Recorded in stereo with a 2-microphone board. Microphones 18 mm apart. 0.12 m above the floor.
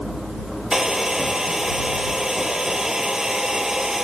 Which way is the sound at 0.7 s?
40° right (ahead or behind).